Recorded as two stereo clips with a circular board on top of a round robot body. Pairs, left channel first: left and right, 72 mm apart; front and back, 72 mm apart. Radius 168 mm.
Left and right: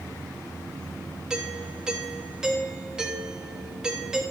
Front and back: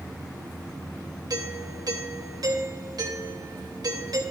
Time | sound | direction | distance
1.3 | a doorbell | 170° right | 3 m